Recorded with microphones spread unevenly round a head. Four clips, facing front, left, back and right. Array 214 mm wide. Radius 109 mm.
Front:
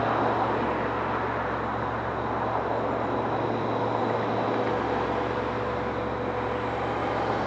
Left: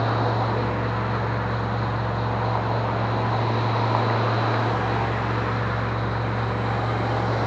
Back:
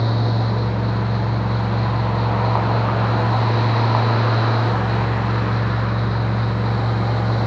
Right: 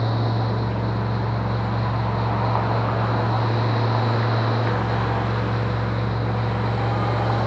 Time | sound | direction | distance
0.0 | a fan | 160° right | ?